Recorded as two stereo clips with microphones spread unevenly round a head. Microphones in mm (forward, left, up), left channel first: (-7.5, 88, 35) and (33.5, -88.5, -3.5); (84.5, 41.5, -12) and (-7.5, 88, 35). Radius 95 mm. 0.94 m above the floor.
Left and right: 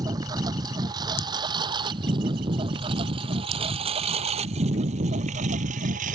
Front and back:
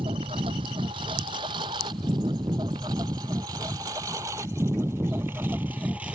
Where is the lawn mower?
150° right; by 6.2 s 130° right.